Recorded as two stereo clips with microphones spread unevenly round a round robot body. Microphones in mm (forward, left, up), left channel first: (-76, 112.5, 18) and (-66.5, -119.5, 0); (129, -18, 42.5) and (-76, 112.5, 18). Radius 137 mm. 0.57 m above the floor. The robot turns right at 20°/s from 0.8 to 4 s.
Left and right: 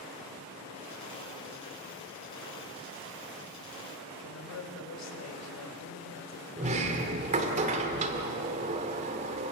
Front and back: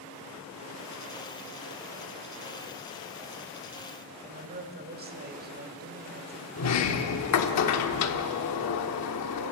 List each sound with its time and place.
4.2 s a woman speaking: 100° left, 3 m
6.6 s a sliding door: 30° right, 1.3 m